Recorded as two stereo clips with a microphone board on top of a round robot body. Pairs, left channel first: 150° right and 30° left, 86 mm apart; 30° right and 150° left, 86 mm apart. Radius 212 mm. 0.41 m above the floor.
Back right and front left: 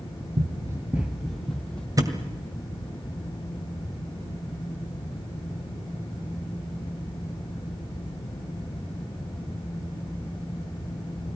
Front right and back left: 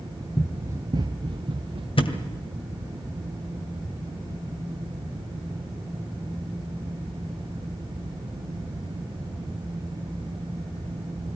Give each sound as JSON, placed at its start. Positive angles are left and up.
{"t": 0.4, "sound": "running footsteps", "azimuth_deg": 45, "distance_m": 0.5}
{"t": 2.0, "sound": "a thud", "azimuth_deg": -20, "distance_m": 1.8}